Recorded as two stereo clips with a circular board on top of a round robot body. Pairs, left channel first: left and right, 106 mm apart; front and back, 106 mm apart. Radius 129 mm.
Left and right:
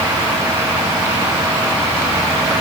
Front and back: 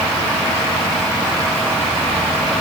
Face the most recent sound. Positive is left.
No sound to turn to.